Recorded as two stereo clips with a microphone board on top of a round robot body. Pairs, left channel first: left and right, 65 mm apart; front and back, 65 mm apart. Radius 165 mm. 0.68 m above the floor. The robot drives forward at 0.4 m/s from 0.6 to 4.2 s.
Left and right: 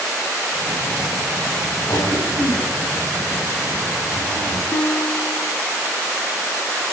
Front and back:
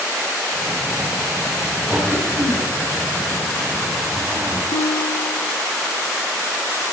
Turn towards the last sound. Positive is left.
turn(degrees=30)